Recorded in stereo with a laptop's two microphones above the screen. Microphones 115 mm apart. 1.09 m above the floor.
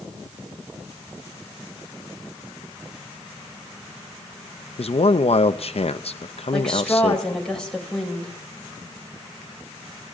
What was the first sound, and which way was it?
A man speaking, 60° left (ahead or behind).